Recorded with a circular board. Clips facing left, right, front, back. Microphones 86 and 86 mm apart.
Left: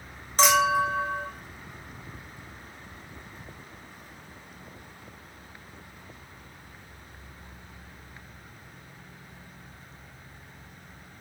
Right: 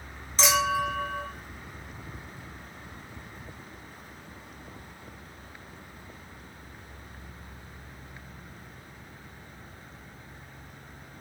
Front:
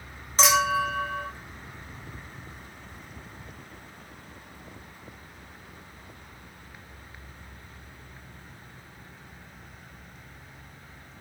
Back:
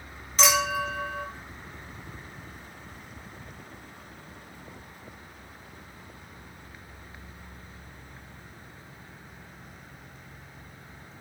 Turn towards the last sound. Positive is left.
turn(degrees=55)